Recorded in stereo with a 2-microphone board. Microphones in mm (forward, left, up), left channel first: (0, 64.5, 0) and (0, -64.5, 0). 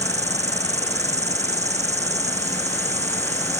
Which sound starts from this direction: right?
An insect, at 0.0 s.